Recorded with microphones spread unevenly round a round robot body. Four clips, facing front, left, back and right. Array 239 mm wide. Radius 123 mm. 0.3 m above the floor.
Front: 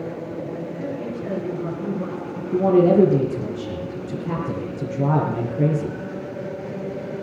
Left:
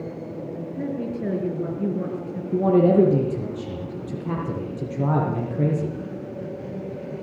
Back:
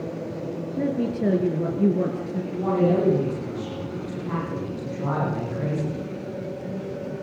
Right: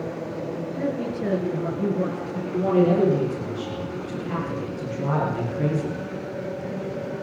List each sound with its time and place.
0.8 s a woman speaking: 175° left, 5.5 m
2.5 s a man speaking: 45° left, 7 m